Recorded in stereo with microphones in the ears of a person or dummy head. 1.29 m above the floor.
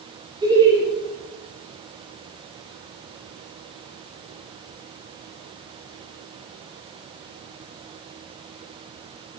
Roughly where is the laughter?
Right.